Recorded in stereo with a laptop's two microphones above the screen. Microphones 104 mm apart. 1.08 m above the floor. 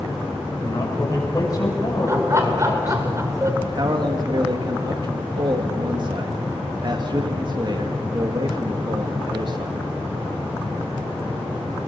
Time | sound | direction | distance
0.6 | a man speaking | 35° left (ahead or behind) | 6.5 m
2.1 | laughter | 30° right (ahead or behind) | 3.5 m
3.6 | a man speaking | 45° right (ahead or behind) | 1.5 m